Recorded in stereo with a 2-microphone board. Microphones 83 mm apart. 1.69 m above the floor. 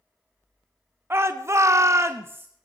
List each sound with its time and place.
1.1 s a shout: 30° right (ahead or behind), 0.8 m; by 2.5 s 25° right (ahead or behind), 0.6 m